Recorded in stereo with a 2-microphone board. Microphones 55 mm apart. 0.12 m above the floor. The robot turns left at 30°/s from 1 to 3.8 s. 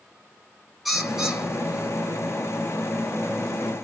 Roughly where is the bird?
Ahead.